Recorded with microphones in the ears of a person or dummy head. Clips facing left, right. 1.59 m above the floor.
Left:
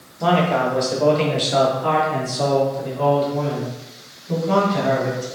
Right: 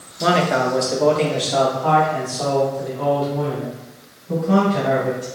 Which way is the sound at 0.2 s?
25° right (ahead or behind).